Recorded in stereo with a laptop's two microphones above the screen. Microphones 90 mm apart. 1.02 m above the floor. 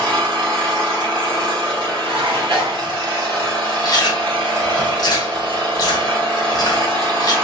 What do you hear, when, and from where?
0.0 s an engine running: 70° right (ahead or behind), 1.5 m
2.0 s dishes clattering: 80° right, 0.9 m
3.8 s chewing: 45° left (ahead or behind), 0.8 m